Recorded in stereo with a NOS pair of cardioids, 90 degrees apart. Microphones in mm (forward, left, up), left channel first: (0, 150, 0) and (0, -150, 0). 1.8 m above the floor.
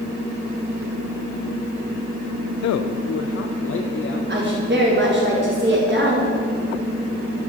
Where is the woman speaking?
35° right, 5 m.